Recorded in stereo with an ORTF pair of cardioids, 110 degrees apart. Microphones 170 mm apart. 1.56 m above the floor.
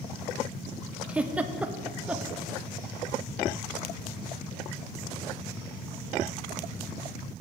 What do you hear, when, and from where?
1.1 s a giggle: 10° right, 0.6 m